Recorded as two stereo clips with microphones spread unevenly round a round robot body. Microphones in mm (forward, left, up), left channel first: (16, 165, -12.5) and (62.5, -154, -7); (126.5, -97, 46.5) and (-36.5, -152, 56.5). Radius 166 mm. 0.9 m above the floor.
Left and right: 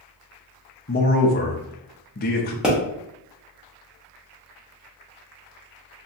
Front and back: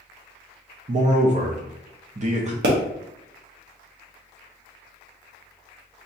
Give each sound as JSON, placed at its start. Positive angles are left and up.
{"t": 0.9, "sound": "a man speaking", "azimuth_deg": 155, "distance_m": 0.5}
{"t": 2.6, "sound": "a pop", "azimuth_deg": -170, "distance_m": 1.0}